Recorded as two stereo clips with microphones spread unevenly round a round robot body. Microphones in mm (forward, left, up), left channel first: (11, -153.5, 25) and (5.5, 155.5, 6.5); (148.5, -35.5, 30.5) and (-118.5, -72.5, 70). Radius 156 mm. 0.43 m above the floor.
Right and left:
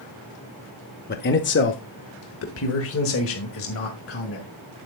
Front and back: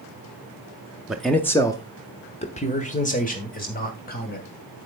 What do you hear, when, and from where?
1.1 s a man speaking: 70° right, 0.9 m; by 4.5 s 45° right, 2.5 m